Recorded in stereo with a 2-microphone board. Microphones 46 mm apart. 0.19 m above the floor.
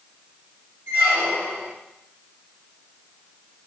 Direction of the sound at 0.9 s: 80° right.